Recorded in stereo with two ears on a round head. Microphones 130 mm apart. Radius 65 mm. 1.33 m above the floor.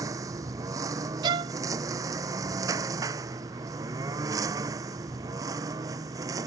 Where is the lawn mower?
25° right (ahead or behind).